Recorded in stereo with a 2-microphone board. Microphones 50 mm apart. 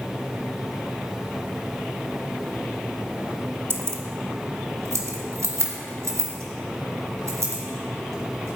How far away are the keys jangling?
About 0.7 m.